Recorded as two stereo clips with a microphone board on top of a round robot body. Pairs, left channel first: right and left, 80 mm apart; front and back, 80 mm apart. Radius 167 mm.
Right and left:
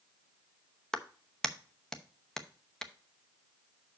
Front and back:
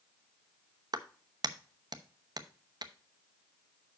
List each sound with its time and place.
0.9 s a clap: 170° right, 1.0 m